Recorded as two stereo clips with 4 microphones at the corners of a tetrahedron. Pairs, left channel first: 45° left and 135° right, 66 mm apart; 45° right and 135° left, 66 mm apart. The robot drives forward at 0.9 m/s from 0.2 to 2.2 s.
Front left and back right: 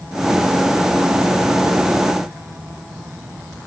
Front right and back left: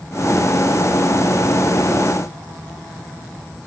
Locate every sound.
Only background noise.